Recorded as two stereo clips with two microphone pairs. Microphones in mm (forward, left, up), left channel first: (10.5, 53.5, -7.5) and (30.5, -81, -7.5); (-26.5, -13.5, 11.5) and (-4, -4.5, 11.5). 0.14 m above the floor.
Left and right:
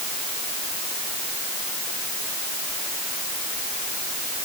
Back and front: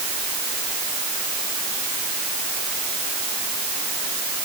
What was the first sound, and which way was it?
Only background noise.